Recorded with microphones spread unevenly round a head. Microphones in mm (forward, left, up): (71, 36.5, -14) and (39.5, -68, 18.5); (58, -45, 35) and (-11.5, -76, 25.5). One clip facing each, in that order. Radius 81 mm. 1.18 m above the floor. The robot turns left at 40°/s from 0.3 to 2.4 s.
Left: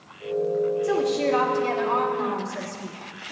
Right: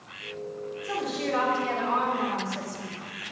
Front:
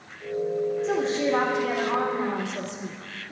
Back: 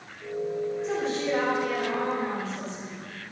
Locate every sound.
0.8 s a woman speaking: 75° left, 3 m; by 3.3 s 10° left, 3 m